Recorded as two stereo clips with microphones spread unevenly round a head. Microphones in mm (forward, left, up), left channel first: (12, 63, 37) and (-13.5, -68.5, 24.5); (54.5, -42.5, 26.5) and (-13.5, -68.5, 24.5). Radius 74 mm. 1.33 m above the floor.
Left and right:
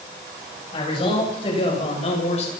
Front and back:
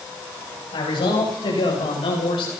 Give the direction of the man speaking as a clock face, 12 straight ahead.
11 o'clock.